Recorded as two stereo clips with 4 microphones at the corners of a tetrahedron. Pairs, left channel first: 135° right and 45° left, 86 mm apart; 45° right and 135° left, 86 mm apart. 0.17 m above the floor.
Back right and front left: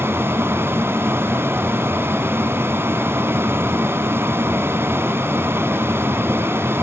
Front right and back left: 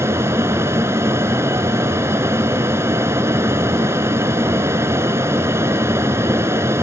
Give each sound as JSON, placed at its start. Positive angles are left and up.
{"t": 0.0, "sound": "an aircraft", "azimuth_deg": 95}